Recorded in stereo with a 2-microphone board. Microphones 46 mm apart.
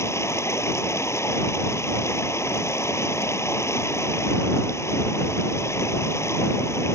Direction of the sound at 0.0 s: 80° left.